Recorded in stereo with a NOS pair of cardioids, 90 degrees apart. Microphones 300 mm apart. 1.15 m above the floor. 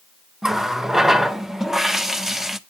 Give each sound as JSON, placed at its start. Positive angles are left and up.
{"t": 0.4, "sound": "a running tap", "azimuth_deg": 0, "distance_m": 0.6}